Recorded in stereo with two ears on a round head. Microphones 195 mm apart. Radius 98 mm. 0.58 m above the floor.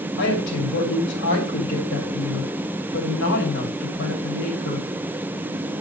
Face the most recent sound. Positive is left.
turn(degrees=55)  # may be behind; listen again after turning